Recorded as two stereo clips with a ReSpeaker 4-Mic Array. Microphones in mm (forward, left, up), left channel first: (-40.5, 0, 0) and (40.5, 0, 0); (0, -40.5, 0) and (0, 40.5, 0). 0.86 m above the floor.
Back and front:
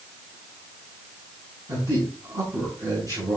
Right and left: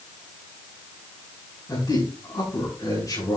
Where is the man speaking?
45° right, 7 m.